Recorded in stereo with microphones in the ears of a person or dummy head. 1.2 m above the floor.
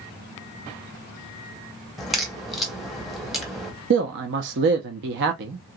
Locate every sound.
2.0 s a crack: centre (ahead or behind), 1.2 m
3.9 s a man speaking: 55° right (ahead or behind), 0.7 m